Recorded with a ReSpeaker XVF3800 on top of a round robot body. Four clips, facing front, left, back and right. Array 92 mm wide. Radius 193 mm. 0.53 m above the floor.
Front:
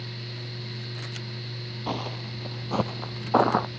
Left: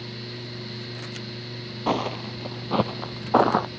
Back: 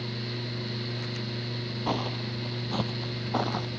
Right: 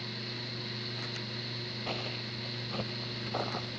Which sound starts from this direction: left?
Footsteps, at 1.9 s.